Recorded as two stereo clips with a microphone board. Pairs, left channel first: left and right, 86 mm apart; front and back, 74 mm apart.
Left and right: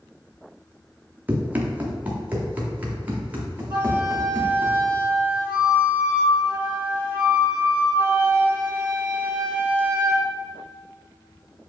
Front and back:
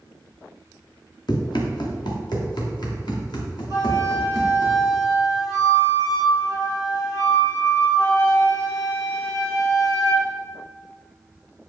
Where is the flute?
20° right, 1.9 m.